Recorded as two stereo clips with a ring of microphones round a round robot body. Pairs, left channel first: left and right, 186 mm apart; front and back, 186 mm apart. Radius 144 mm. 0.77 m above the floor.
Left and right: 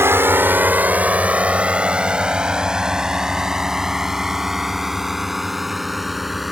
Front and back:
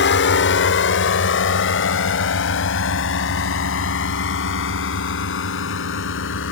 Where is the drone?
15° right; by 6.5 s straight ahead.